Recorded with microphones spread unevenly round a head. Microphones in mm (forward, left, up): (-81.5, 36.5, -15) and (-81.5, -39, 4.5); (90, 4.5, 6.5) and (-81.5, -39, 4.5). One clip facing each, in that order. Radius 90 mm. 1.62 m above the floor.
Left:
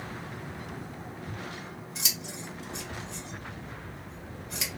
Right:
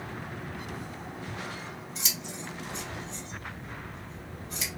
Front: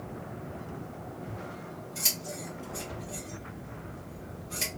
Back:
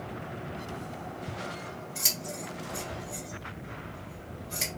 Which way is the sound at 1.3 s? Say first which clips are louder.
Right 2 dB, back 2 dB; 115° left.